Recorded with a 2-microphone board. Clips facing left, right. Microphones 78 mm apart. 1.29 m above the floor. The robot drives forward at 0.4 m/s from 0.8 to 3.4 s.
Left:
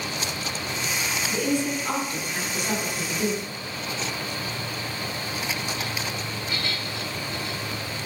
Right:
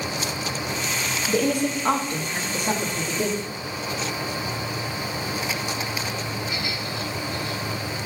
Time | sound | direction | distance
1.3 | a woman speaking | 70° right (ahead or behind) | 0.7 m